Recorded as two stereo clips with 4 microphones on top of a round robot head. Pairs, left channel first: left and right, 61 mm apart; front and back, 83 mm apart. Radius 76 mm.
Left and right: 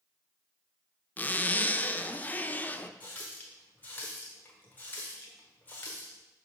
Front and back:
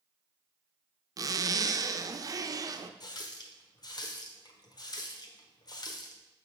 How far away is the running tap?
About 1.1 m.